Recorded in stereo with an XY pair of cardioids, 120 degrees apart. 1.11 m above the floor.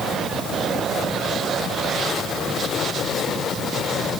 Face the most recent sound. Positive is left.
No sound to turn to.